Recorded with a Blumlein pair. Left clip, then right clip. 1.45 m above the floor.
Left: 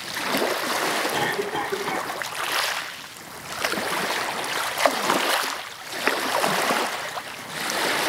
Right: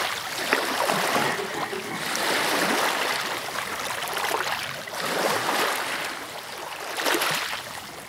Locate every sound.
1.1 s a cough: 15° left, 4 m